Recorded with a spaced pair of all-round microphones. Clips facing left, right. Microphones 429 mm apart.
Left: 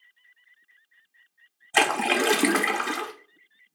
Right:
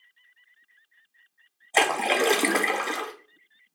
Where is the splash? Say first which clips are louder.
Even; 25° left (ahead or behind), 0.5 m.